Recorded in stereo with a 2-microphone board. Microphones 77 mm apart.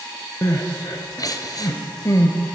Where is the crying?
55° left (ahead or behind), 0.7 m.